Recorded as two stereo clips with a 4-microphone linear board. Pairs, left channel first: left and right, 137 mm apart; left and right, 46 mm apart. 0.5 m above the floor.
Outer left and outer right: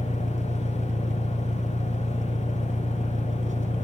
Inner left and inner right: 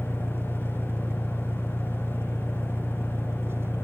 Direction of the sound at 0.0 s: 65° right (ahead or behind).